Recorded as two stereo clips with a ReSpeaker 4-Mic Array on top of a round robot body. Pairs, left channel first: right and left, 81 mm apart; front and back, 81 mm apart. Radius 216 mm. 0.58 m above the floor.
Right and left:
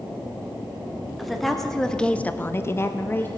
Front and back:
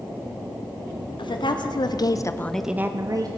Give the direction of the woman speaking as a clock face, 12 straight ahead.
12 o'clock.